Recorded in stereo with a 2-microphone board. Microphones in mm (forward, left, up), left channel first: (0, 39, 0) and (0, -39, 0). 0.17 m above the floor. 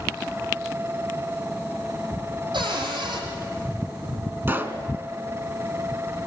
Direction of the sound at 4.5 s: 25° right (ahead or behind).